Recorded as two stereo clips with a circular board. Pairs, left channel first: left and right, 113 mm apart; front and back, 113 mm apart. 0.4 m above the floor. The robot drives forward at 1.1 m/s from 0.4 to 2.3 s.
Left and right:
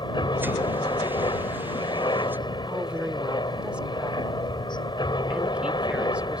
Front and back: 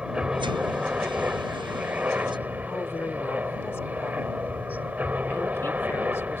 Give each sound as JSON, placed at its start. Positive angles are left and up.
{"t": 0.0, "sound": "a helicopter", "azimuth_deg": 100}
{"t": 2.7, "sound": "a woman speaking", "azimuth_deg": -25}